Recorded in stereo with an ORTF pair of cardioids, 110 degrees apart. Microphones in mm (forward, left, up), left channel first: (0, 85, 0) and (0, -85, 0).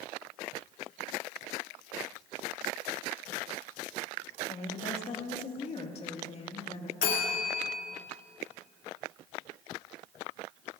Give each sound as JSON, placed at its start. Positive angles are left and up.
{"t": 4.5, "sound": "a woman speaking", "azimuth_deg": 40, "distance_m": 2.0}
{"t": 7.0, "sound": "a bell", "azimuth_deg": 55, "distance_m": 2.5}